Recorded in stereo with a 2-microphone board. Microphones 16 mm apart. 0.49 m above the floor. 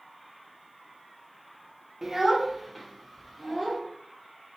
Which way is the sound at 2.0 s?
25° right (ahead or behind).